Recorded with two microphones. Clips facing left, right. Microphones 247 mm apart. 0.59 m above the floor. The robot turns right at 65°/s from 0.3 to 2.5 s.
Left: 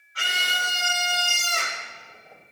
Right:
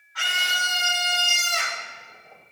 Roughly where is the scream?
Ahead left.